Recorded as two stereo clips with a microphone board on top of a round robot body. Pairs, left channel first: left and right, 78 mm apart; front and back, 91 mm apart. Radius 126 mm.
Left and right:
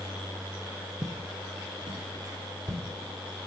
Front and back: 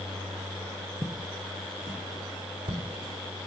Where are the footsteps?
125° right, 0.8 m; by 2.8 s 140° right, 1.7 m.